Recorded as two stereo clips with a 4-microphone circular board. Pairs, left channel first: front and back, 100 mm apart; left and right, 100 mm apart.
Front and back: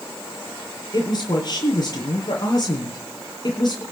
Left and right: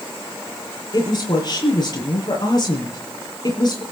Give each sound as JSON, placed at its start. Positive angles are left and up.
{"t": 0.9, "sound": "a woman speaking", "azimuth_deg": 45, "distance_m": 8.5}